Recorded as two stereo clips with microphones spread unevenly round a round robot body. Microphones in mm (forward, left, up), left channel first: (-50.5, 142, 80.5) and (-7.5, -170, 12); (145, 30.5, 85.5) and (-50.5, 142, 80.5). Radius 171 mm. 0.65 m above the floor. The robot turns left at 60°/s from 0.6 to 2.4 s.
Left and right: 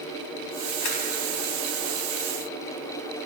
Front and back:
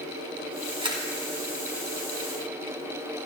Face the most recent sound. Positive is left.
turn(degrees=-10)